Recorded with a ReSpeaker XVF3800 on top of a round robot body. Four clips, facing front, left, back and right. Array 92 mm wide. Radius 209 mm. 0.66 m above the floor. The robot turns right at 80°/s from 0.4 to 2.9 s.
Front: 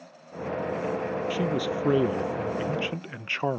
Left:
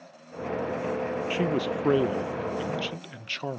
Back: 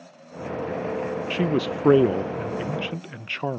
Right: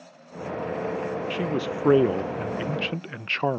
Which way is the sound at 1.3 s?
160° left.